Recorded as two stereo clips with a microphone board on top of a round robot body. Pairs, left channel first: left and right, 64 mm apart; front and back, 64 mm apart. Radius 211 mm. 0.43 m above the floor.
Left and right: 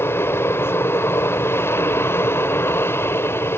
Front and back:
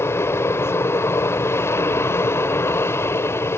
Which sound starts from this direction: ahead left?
An aircraft, at 0.0 s.